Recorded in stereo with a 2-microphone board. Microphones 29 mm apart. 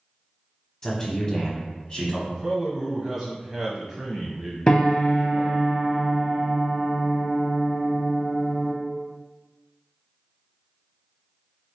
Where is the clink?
I don't hear a clink.